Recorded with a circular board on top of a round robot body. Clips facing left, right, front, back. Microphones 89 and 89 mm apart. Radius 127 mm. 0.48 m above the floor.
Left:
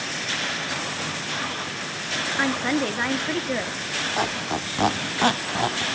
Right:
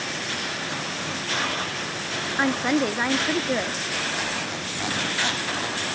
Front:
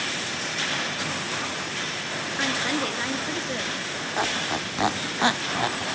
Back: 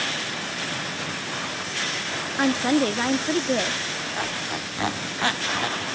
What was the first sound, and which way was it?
A woman speaking, 170° right.